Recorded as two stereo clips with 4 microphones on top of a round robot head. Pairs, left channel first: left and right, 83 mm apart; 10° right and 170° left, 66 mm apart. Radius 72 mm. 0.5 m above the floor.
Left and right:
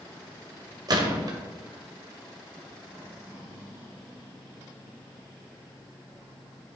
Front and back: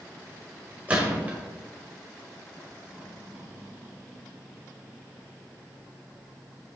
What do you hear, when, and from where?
0.9 s a gunshot: 120° right, 1.8 m